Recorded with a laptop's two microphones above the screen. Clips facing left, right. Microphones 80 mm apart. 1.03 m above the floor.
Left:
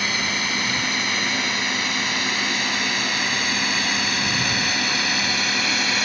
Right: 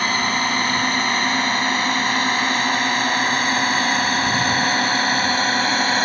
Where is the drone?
45° right (ahead or behind); by 6.0 s 40° right (ahead or behind).